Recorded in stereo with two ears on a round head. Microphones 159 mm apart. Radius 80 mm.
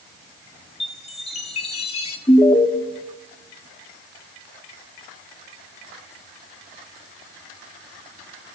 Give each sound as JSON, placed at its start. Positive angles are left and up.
{"t": 0.8, "sound": "a chime", "side_deg": 35, "distance_m": 2.0}
{"t": 2.3, "sound": "an alarm", "side_deg": 20, "distance_m": 1.7}